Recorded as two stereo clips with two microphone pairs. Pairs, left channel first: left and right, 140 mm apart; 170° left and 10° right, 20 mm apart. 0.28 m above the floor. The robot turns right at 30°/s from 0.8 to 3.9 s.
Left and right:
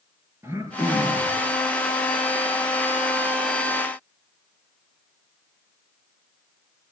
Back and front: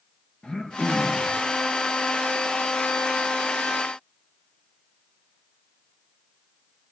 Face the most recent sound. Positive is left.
turn(degrees=-65)